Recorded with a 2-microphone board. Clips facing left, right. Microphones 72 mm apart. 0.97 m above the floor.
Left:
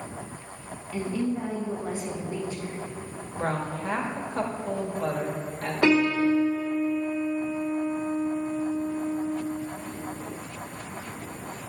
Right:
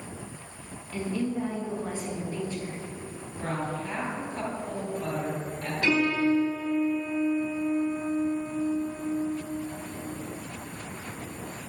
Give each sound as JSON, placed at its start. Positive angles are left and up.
{"t": 0.9, "sound": "a woman speaking", "side_deg": 10, "distance_m": 1.4}
{"t": 3.4, "sound": "a woman speaking", "side_deg": 65, "distance_m": 1.3}
{"t": 5.8, "sound": "a piano", "side_deg": 75, "distance_m": 1.0}